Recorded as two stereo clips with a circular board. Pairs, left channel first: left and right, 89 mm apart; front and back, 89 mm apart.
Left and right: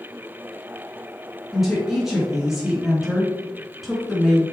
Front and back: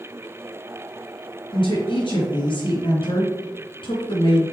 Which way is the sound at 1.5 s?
5° right.